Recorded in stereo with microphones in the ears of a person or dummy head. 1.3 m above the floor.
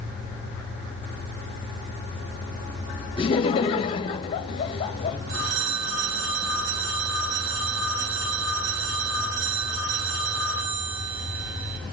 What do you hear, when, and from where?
3.2 s laughter: 30° left (ahead or behind), 1.7 m
5.3 s a phone ringing: 65° right (ahead or behind), 7 m